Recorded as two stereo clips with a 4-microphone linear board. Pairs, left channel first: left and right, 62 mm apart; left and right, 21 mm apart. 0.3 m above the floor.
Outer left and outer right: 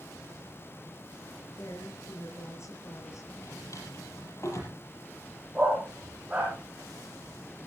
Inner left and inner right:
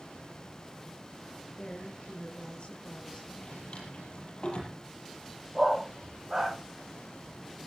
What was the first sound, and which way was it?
A woman speaking, 50° left (ahead or behind).